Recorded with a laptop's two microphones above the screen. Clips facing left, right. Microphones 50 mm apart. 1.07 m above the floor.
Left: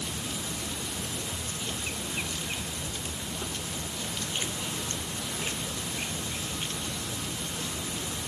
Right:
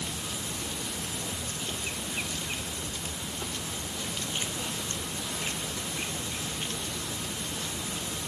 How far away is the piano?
No piano in this recording.